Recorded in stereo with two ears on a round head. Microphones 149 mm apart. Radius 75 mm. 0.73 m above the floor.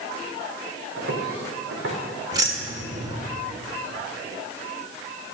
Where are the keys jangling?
25° right (ahead or behind), 1.7 m.